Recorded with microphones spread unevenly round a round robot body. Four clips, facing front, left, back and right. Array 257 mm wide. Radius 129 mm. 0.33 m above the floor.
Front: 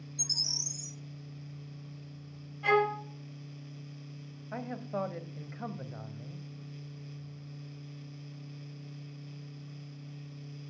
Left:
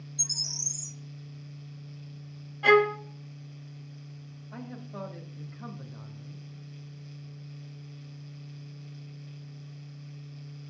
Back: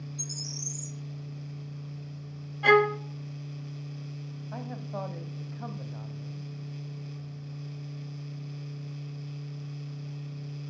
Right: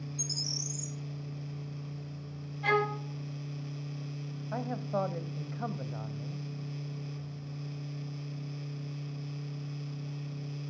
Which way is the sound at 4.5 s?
75° right.